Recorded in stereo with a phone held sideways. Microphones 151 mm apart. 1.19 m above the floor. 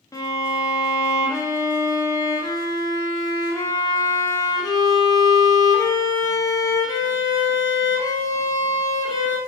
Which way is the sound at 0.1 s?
20° left (ahead or behind).